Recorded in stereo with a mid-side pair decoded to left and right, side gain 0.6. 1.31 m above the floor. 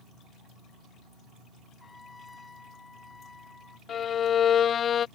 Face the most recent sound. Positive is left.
turn(degrees=40)